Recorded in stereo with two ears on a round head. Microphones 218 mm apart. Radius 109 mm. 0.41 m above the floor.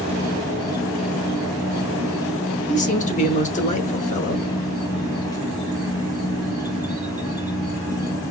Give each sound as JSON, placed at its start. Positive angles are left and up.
{"t": 0.0, "sound": "an insect", "side_deg": 15, "distance_m": 2.5}
{"t": 2.7, "sound": "a man speaking", "side_deg": 30, "distance_m": 0.9}